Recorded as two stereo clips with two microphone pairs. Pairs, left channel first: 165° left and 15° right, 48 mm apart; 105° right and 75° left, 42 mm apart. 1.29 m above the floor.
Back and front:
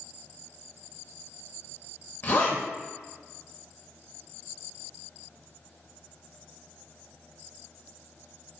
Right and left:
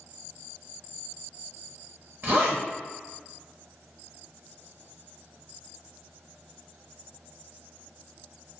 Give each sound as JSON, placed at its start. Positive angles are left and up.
{"t": 2.2, "sound": "a zipper", "azimuth_deg": 115, "distance_m": 1.1}